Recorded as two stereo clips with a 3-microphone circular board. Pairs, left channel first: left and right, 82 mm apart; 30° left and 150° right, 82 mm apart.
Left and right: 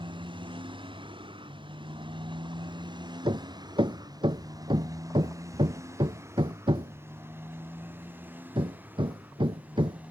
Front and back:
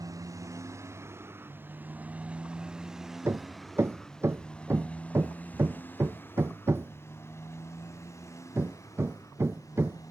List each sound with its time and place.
0.0 s a motorcycle: 105° right; by 10.1 s 20° right
3.2 s hammering: 90° right